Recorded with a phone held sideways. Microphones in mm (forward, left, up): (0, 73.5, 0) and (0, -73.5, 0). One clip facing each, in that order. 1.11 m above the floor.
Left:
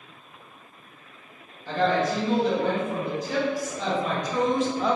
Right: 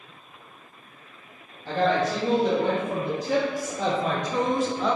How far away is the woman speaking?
About 1.6 m.